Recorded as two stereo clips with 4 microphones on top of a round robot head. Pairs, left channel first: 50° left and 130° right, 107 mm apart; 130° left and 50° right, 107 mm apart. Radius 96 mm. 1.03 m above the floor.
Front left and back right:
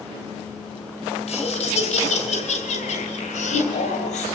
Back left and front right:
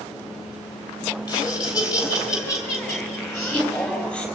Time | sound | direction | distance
1.3 | laughter | 75° left | 5.5 m